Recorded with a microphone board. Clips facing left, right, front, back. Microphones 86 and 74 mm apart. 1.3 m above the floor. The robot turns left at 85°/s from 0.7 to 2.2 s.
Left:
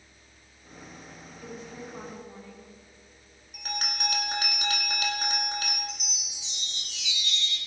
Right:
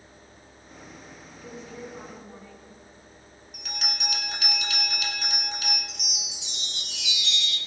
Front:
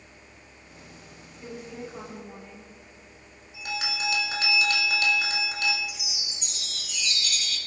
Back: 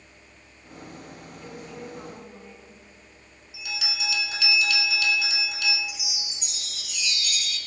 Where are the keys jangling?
I don't hear keys jangling.